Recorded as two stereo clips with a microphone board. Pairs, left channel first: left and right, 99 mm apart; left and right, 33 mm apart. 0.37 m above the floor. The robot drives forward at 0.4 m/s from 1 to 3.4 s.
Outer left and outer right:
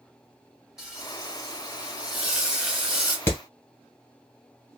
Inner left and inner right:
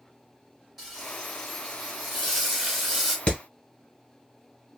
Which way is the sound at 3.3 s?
25° left (ahead or behind).